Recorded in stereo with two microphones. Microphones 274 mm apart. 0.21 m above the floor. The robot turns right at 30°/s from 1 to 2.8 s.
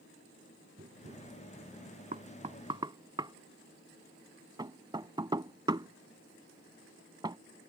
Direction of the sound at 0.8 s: 35° right (ahead or behind).